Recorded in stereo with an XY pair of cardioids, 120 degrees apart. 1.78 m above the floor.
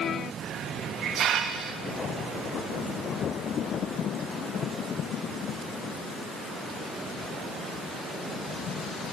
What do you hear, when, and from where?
0.4 s a hiss: 60° right, 3 m